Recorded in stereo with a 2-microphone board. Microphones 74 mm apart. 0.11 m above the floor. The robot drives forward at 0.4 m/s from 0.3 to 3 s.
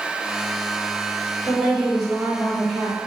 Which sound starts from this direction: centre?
A woman speaking, at 1.5 s.